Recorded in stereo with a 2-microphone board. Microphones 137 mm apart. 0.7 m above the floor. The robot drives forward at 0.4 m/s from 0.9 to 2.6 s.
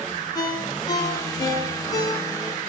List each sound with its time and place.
0.3 s a ringtone: 25° left (ahead or behind), 8.5 m